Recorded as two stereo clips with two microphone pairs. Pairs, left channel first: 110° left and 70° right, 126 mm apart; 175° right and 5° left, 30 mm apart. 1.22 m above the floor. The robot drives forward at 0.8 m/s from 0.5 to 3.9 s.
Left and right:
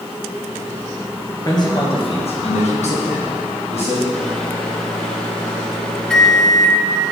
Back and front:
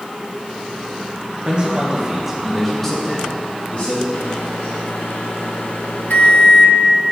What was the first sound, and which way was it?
A man speaking, 55° left.